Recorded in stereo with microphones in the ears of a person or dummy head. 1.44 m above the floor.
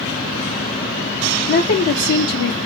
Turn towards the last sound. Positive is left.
turn(degrees=55)  # may be behind; listen again after turning